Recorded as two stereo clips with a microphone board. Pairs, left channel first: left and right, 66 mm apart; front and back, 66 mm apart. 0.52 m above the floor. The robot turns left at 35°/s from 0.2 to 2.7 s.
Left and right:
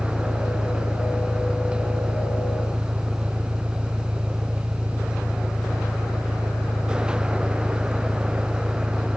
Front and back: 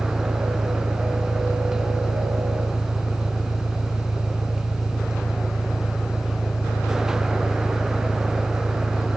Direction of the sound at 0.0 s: 80° left.